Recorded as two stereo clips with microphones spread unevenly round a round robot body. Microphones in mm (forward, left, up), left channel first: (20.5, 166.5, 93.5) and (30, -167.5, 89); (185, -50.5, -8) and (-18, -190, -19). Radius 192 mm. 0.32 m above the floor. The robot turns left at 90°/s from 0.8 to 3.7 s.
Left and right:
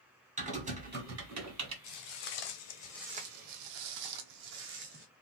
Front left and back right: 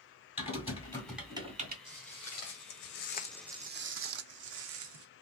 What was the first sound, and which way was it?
Typing on a keyboard, 25° right.